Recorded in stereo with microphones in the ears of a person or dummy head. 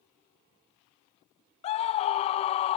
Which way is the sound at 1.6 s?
30° left (ahead or behind).